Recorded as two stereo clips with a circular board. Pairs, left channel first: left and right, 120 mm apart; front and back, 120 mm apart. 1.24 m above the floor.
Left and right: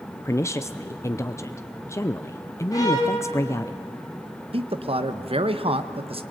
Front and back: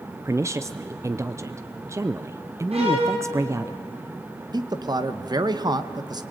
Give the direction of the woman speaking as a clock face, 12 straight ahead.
7 o'clock.